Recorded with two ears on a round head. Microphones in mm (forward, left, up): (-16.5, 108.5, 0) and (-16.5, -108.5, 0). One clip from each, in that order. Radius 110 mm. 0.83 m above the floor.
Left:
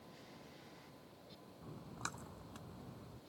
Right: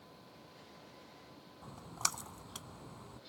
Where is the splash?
60° right (ahead or behind).